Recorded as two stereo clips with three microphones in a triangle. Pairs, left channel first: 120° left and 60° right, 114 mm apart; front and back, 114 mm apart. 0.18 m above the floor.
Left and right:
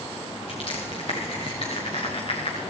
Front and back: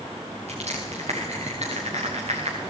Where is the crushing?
155° left, 5.5 m.